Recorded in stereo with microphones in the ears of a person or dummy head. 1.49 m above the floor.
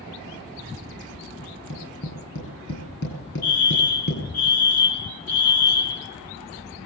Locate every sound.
1.4 s tapping: 65° left (ahead or behind), 9.5 m
3.4 s a fire alarm: 50° left (ahead or behind), 1.7 m